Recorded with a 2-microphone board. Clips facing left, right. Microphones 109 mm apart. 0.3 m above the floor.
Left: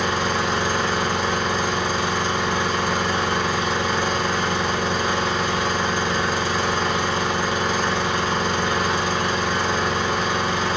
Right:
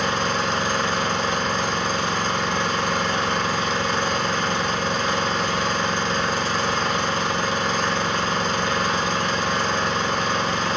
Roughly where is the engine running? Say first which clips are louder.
Left 1 dB; centre.